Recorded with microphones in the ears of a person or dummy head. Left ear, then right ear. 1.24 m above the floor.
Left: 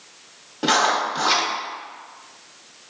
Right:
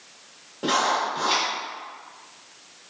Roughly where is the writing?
Left.